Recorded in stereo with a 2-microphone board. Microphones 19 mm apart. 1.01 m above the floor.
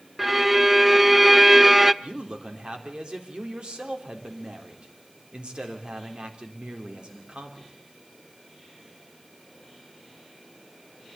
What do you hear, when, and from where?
0.2 s a violin: 10° right (ahead or behind), 0.7 m
2.0 s a man speaking: 60° right (ahead or behind), 3.5 m